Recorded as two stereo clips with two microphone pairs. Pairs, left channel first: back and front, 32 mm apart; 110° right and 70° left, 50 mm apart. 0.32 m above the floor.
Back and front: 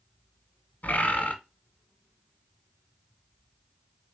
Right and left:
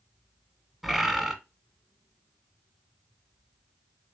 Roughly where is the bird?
Behind.